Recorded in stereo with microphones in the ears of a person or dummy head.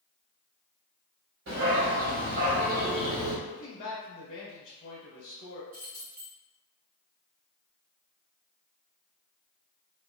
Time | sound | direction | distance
1.5 | a dog barking | 60° right (ahead or behind) | 1.6 m
3.5 | a man speaking | 40° left (ahead or behind) | 1.0 m
5.7 | keys jangling | 45° right (ahead or behind) | 1.0 m